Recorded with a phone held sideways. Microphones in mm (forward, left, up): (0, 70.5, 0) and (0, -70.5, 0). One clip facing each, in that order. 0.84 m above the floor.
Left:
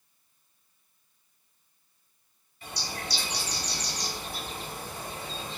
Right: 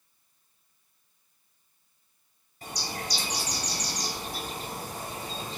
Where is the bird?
40° right (ahead or behind), 0.6 m.